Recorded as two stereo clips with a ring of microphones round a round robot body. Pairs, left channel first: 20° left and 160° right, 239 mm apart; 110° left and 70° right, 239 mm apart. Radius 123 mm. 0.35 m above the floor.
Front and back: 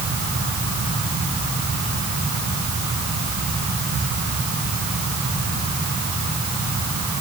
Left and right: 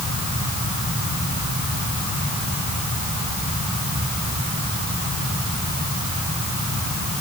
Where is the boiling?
I don't hear boiling.